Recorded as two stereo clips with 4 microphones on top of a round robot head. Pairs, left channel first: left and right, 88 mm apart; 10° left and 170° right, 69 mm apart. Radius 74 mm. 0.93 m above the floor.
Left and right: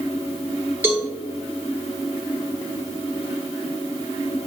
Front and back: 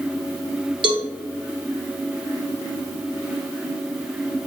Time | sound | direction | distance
0.8 | a cowbell | 160° right | 0.9 m